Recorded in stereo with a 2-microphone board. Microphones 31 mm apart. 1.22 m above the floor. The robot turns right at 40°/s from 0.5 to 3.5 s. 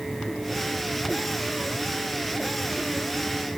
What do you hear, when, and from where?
Only background noise.